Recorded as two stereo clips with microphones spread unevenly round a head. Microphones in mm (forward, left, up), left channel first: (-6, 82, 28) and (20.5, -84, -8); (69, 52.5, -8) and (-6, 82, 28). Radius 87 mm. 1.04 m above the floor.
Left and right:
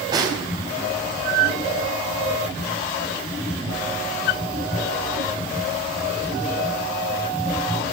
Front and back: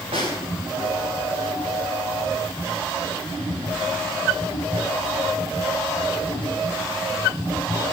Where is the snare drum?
150° right, 4.5 m.